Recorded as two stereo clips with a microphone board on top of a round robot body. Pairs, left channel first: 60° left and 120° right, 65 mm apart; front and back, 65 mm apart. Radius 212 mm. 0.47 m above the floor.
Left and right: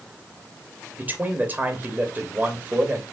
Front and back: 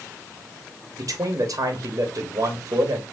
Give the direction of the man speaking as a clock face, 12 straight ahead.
6 o'clock.